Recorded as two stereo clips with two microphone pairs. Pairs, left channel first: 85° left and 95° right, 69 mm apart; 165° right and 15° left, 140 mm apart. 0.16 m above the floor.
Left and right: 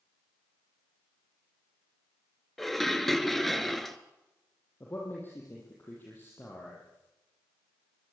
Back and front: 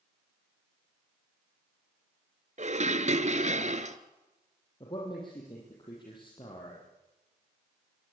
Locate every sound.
2.6 s dishes clattering: 5° right, 1.5 m
4.8 s a man speaking: 145° left, 7 m